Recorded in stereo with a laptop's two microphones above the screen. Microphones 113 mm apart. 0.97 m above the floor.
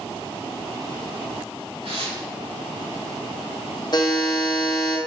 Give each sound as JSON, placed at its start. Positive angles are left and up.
{"t": 1.8, "sound": "tearing paper", "side_deg": -65, "distance_m": 1.5}
{"t": 3.9, "sound": "a buzzer", "side_deg": 45, "distance_m": 0.7}